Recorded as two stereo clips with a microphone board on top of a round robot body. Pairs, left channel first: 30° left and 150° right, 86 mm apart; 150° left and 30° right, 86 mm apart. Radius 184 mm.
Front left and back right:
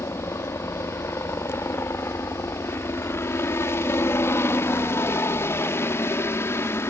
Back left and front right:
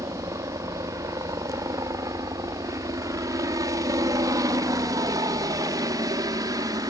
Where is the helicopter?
10° right; by 6.9 s 15° right.